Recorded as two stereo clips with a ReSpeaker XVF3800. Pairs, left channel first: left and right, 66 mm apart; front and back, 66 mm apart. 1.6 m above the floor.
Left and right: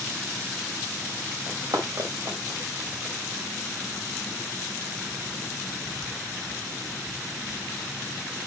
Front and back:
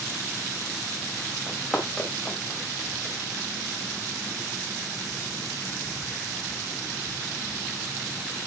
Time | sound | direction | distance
1.5 | running footsteps | 95° right | 5 m